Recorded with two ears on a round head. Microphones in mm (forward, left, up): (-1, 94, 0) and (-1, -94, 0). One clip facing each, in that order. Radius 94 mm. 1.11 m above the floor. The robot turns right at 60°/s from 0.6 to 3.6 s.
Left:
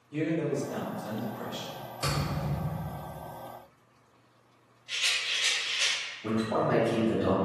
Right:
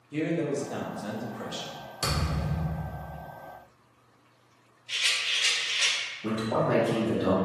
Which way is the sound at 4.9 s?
10° left (ahead or behind).